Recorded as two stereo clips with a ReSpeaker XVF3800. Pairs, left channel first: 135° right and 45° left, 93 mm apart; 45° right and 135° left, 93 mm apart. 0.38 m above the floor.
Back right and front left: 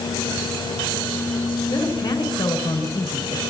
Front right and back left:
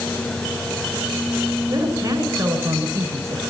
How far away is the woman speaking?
About 5 m.